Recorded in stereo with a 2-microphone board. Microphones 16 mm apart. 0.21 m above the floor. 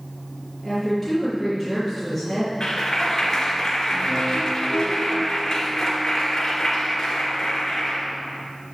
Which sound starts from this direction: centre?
A woman speaking, at 0.6 s.